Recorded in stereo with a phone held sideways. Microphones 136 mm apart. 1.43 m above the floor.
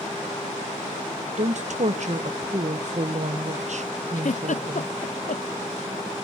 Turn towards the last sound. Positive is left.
turn(degrees=65)  # may be behind; listen again after turning